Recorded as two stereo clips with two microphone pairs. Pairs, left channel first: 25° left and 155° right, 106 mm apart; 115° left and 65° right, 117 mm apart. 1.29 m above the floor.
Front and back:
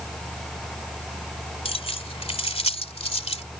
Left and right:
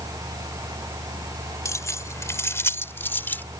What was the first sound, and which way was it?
Keys jangling, 50° left.